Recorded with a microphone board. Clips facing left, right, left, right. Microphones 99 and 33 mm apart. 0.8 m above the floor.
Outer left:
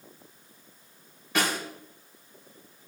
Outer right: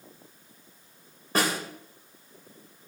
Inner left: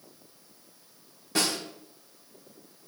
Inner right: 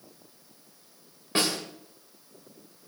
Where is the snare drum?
40° right (ahead or behind), 3.5 m.